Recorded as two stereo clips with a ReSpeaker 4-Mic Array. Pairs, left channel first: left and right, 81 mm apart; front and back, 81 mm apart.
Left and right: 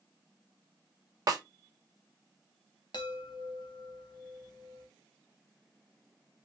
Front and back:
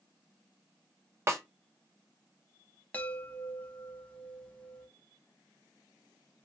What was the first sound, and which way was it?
A snare drum, 125° right.